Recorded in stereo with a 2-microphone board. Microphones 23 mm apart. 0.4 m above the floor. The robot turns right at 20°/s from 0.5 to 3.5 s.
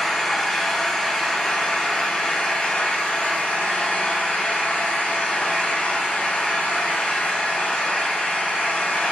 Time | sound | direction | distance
0.0 | an engine running | 20° left | 4.5 m